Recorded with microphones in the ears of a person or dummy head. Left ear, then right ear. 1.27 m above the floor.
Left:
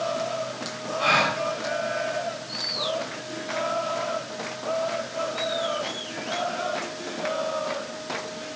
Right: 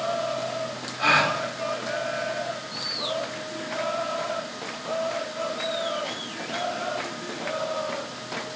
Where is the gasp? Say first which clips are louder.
Right 1 dB; 10° right (ahead or behind), 3.5 m.